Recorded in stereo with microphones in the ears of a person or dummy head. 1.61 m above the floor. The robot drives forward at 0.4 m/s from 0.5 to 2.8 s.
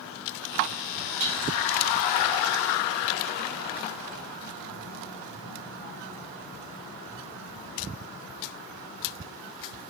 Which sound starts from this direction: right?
Dishes clattering, at 1.2 s.